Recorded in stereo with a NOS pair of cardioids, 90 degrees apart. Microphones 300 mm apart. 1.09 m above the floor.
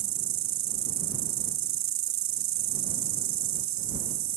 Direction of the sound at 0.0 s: 70° right.